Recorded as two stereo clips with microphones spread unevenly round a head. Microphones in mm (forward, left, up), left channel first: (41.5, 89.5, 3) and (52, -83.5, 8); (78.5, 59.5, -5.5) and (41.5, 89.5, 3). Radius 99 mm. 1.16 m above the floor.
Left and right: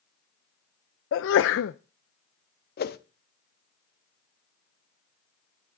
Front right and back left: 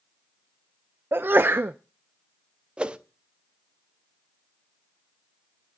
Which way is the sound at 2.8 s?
85° left.